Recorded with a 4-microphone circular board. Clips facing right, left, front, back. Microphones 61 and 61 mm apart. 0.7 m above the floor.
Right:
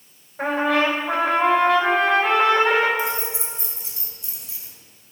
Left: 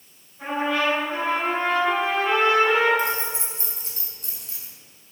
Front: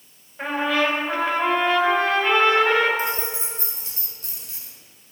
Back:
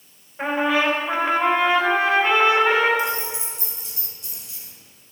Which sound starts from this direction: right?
A trumpet, at 0.4 s.